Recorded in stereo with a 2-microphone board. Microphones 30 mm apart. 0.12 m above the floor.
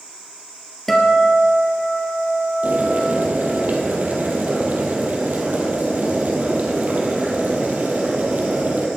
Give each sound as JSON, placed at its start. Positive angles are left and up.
{"t": 0.9, "sound": "a guitar", "side_deg": 5, "distance_m": 2.5}
{"t": 2.6, "sound": "boiling", "side_deg": -65, "distance_m": 3.0}